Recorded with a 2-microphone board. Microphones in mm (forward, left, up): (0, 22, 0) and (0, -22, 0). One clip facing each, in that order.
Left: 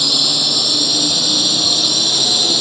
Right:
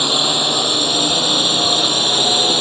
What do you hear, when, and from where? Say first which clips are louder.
0.0 s a drone: right 2 dB; 30° right (ahead or behind)